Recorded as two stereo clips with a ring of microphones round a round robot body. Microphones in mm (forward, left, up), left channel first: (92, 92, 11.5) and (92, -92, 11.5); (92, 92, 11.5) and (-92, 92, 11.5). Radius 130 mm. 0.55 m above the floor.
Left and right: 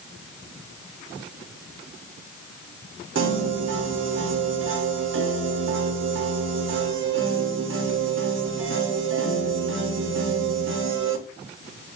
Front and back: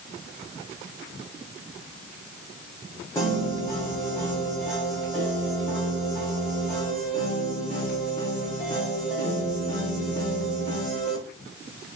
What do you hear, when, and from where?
3.1 s a piano: 80° right, 0.7 m